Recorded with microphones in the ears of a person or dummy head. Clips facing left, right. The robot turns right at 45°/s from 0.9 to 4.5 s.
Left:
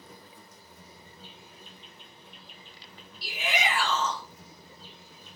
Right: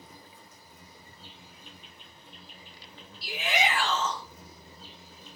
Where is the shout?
65° left, 1.6 m; by 4.2 s 110° left, 1.6 m.